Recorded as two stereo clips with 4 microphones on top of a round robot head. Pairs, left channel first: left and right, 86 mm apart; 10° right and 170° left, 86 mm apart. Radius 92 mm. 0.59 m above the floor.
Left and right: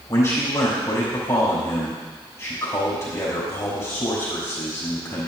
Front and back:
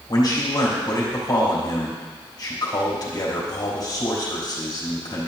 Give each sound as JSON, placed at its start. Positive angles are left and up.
{"t": 0.1, "sound": "a man speaking", "azimuth_deg": 30, "distance_m": 3.5}